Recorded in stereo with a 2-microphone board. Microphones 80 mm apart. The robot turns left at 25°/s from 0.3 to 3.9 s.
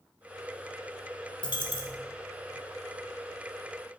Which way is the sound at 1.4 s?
70° left (ahead or behind).